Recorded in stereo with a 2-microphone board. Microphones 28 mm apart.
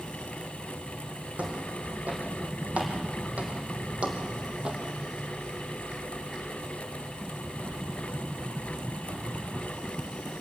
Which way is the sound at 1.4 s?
65° right (ahead or behind).